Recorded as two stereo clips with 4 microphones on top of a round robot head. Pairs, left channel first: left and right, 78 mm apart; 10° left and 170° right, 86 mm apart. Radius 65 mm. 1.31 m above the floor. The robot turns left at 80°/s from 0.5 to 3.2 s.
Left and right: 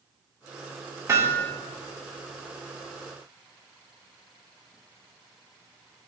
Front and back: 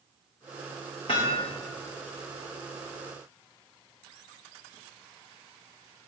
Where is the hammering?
40° right, 1.8 m; by 1.5 s 75° right, 1.8 m.